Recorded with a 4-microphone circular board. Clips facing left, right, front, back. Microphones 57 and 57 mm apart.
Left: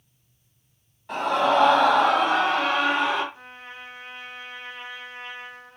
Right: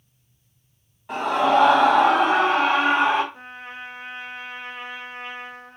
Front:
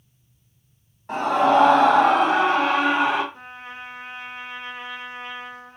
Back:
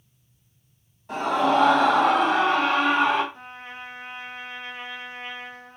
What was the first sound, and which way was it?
A scream, 10° right.